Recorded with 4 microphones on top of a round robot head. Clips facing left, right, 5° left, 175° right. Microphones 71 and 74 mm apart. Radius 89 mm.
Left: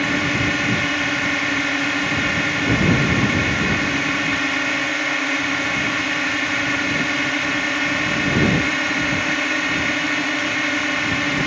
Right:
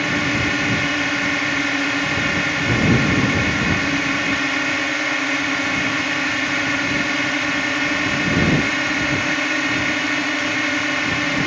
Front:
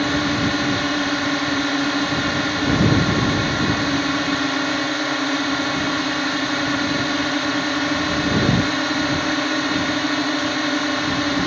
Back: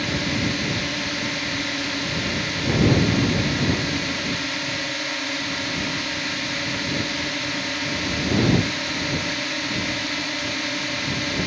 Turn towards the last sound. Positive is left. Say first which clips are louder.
# even, front 5 dB
turn(degrees=0)